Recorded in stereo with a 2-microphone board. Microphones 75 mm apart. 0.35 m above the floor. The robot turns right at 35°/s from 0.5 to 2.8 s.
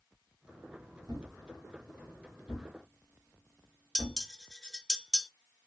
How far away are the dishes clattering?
About 0.5 m.